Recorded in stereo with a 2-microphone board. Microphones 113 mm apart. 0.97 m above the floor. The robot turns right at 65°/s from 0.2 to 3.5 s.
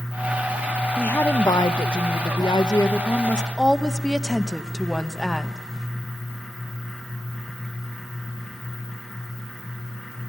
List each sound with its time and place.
1.0 s a woman speaking: 10° left, 1.0 m; by 5.6 s 175° left, 1.0 m